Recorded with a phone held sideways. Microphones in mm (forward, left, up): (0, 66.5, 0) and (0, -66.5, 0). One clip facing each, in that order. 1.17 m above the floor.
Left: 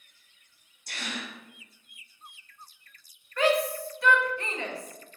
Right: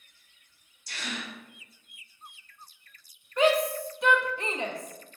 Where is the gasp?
55° left (ahead or behind), 0.9 m.